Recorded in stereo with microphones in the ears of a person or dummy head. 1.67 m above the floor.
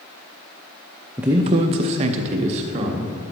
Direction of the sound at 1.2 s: 10° right (ahead or behind).